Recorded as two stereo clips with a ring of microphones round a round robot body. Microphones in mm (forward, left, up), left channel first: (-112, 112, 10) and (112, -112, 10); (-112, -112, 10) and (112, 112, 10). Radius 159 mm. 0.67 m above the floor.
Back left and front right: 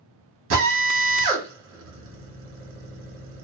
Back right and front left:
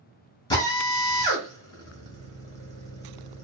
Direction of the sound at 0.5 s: 60° right.